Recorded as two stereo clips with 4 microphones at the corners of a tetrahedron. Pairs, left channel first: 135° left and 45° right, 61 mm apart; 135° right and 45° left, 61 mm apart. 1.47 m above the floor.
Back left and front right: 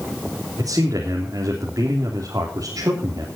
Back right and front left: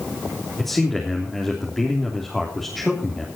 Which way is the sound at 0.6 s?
50° right.